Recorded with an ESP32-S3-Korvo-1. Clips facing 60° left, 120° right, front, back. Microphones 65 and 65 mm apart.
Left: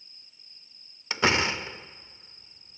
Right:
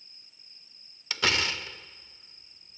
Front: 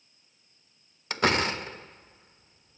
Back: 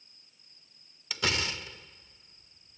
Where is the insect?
175° left.